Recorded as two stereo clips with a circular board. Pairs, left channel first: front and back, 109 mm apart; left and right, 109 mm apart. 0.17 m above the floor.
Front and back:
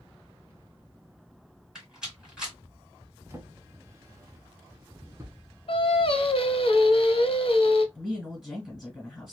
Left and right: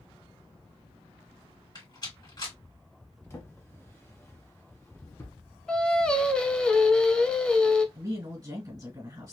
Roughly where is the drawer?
Behind left.